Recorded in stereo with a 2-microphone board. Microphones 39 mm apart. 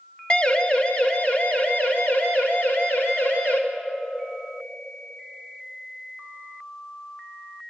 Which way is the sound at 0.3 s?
30° left (ahead or behind).